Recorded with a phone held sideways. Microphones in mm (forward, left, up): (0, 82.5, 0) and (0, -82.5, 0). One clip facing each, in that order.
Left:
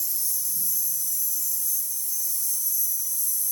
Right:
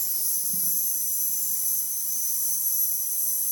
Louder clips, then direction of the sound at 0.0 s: Right 2 dB; 60° right (ahead or behind).